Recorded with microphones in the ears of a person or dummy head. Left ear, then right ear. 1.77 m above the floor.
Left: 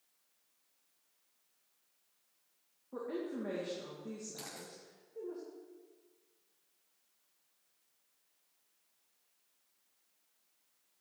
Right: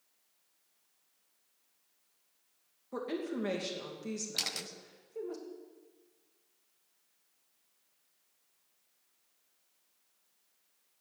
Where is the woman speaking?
80° right, 2.5 m.